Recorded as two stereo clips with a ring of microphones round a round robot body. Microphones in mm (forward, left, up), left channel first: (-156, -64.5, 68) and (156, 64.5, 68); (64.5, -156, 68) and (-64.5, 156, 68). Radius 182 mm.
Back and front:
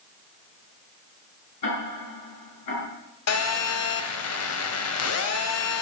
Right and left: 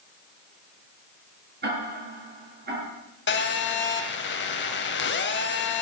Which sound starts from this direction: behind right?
A phone buzzing, at 3.3 s.